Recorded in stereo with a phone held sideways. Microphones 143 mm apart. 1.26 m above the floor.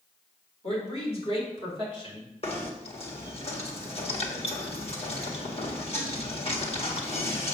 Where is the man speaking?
45° left (ahead or behind), 4 m; by 2.3 s 35° left (ahead or behind), 4 m.